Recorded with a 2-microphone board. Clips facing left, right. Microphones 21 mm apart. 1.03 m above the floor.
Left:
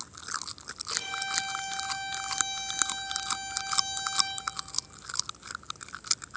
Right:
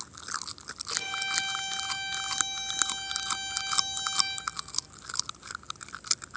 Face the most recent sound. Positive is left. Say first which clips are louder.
# right 1 dB
turn(degrees=-20)  # may be behind; listen again after turning